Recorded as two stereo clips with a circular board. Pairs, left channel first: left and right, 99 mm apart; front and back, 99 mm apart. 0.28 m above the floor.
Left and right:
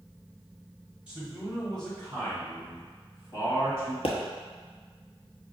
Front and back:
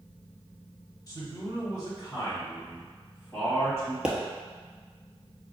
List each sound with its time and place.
1.1 s a man speaking: 15° right, 1.5 m; by 3.9 s 55° left, 2.0 m
4.0 s a pop: 100° left, 0.9 m